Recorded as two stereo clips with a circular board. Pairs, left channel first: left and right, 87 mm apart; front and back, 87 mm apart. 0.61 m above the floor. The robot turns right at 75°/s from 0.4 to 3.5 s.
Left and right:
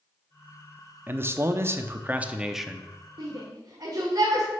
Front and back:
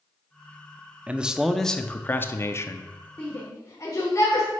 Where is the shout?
75° right, 1.7 m; by 4.5 s 50° right, 1.7 m.